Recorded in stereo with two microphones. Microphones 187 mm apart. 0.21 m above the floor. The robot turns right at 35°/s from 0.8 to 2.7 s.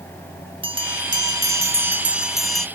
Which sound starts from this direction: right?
A bell, at 0.6 s.